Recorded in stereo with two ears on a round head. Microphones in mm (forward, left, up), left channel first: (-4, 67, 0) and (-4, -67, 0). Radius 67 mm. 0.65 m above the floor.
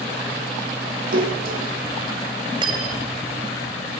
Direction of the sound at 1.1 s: 65° right (ahead or behind).